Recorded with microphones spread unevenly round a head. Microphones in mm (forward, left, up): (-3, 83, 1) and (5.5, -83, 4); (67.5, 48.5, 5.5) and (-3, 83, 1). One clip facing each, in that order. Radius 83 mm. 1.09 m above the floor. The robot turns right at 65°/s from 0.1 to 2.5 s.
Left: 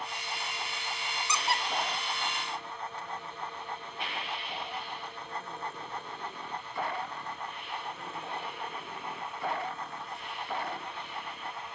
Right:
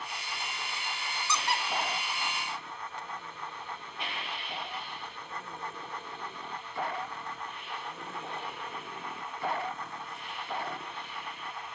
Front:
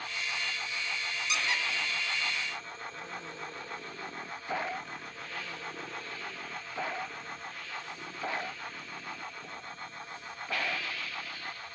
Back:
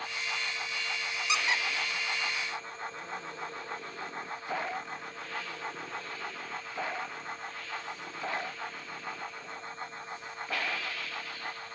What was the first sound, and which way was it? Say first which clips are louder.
A squeak: even, back 2 dB; 170° left.